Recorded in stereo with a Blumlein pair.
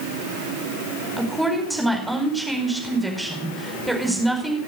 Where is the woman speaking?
5° right, 5 m.